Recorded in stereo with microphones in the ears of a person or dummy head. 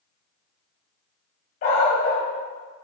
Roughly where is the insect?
No insect in this recording.